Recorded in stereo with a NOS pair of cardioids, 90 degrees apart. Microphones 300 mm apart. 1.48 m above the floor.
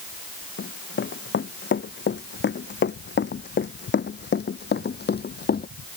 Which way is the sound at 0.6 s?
40° left.